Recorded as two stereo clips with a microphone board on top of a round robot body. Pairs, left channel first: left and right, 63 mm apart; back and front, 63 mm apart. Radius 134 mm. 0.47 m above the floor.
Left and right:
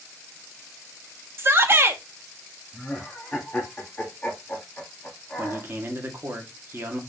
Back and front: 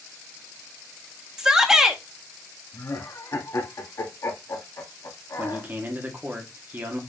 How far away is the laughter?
About 2.5 m.